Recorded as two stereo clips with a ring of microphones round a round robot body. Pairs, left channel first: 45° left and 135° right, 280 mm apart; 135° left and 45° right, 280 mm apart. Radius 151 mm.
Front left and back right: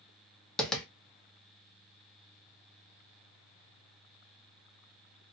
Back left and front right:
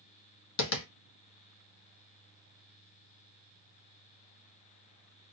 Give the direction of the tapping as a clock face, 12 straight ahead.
8 o'clock.